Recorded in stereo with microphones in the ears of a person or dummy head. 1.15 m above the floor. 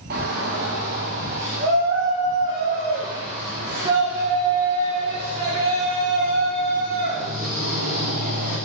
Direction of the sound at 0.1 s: 45° right (ahead or behind).